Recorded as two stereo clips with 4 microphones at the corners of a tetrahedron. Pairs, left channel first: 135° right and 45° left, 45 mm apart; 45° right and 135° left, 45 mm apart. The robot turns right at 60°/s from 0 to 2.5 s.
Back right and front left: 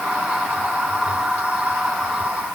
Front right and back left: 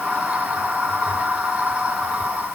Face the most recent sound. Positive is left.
No sound to turn to.